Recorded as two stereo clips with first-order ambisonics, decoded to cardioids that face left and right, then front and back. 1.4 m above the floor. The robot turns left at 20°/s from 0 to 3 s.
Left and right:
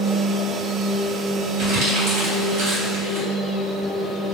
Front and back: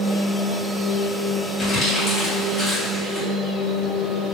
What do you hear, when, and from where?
1.6 s crumpling: 60° right, 1.8 m; by 3.3 s 85° right, 1.8 m